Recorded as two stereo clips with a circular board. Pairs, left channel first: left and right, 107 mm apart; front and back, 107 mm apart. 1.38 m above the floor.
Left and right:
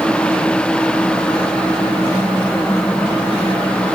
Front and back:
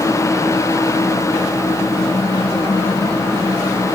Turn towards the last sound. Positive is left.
No sound to turn to.